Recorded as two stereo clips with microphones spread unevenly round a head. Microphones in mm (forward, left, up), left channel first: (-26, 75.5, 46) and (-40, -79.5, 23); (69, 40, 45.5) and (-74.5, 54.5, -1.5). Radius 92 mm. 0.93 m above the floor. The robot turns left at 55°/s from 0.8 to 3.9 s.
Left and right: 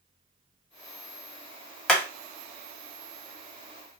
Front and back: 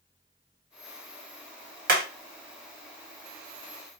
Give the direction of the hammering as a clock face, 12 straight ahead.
6 o'clock.